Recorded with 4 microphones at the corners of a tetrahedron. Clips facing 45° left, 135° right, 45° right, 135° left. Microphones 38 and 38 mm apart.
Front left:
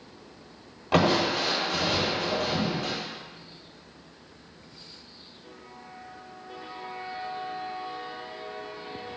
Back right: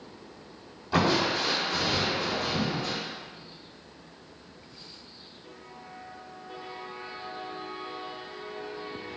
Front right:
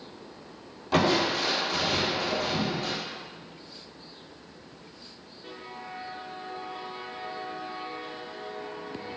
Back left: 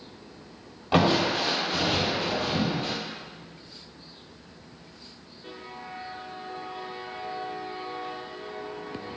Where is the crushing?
70° left, 2 m.